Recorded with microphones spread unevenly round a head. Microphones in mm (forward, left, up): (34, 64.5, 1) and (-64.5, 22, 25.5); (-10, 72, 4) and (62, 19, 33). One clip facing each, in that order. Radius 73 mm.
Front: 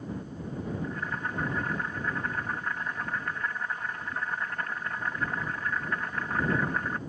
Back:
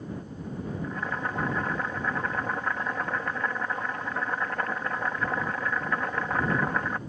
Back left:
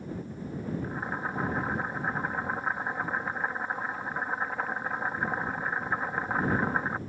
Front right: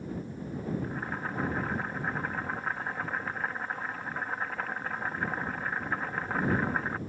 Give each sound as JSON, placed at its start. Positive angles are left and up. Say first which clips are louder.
{"t": 0.8, "sound": "boiling", "louder": "back 2 dB, back left 2 dB", "azimuth_deg": -130}